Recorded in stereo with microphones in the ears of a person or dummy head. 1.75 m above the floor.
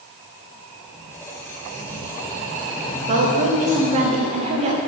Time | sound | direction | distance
0.9 | a squeak | 10° left (ahead or behind) | 0.8 m
3.1 | a woman speaking | 30° right (ahead or behind) | 1.2 m